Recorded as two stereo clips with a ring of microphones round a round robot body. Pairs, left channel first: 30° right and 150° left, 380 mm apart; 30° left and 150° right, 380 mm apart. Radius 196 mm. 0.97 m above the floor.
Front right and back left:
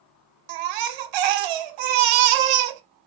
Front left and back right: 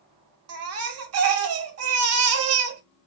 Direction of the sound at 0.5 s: 160° left.